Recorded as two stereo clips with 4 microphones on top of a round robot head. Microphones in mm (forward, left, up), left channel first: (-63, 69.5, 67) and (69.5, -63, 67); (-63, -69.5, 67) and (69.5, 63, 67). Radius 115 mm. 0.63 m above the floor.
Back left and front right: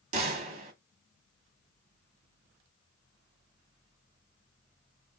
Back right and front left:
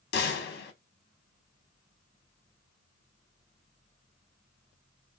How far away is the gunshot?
About 0.8 m.